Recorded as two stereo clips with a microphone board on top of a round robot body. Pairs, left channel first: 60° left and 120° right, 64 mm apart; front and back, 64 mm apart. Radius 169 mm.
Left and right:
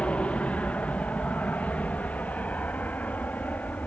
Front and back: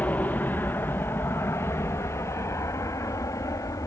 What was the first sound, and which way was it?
An aircraft, 15° left.